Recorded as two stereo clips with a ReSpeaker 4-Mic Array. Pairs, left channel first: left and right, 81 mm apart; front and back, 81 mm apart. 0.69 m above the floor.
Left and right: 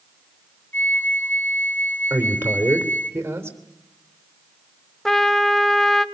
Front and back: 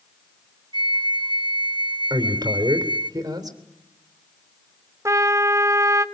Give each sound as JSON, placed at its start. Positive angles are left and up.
{"t": 0.7, "sound": "a flute", "azimuth_deg": 160, "distance_m": 0.8}
{"t": 2.1, "sound": "a man speaking", "azimuth_deg": -150, "distance_m": 3.0}
{"t": 5.0, "sound": "a trumpet", "azimuth_deg": 170, "distance_m": 1.0}